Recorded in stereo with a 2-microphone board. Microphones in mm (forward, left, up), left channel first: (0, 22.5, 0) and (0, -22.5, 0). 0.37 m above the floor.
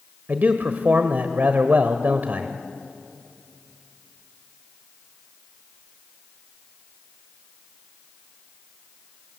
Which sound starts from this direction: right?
A man speaking, at 0.3 s.